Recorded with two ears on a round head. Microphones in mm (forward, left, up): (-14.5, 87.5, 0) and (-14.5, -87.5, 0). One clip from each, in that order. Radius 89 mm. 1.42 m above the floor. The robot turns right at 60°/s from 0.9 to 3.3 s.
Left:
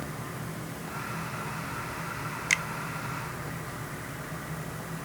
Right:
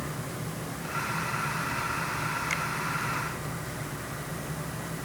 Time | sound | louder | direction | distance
2.5 | a finger snap | left 8 dB | 40° left (ahead or behind) | ?